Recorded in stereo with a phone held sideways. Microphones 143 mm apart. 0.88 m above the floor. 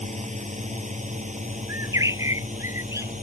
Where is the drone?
50° right (ahead or behind); by 3.2 s 55° right (ahead or behind).